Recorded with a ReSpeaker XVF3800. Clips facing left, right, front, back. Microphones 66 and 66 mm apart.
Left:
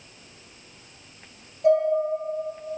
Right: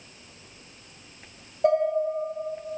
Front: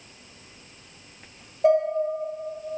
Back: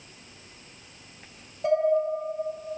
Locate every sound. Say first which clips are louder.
1.6 s dishes clattering: left 2 dB, front 5 dB; 60° right, 1.5 m